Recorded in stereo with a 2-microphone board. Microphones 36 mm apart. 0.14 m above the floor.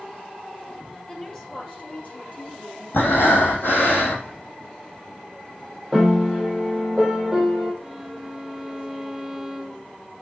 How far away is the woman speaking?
About 2.5 m.